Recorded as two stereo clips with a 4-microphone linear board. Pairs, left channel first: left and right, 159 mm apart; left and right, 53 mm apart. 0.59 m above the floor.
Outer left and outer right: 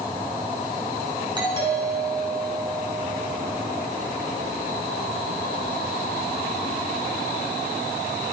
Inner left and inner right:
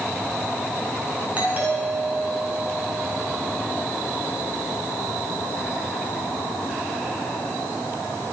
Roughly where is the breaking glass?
No breaking glass in this recording.